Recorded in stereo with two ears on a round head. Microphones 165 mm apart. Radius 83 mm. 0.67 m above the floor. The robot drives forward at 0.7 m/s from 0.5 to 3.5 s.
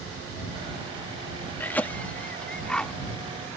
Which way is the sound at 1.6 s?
10° left (ahead or behind).